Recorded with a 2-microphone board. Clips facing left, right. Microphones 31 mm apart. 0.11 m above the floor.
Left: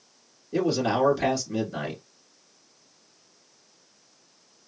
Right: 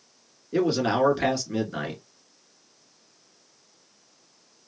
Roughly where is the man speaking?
Right.